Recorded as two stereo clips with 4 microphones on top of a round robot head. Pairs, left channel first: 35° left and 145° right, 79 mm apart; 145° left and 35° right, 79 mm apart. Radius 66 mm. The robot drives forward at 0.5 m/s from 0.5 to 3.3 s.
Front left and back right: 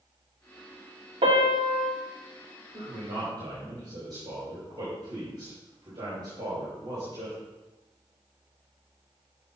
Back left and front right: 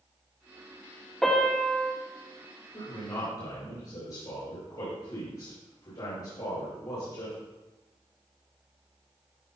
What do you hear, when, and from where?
1.2 s a piano: 130° right, 1.9 m; by 1.9 s 140° right, 2 m
2.7 s a man speaking: straight behind, 4 m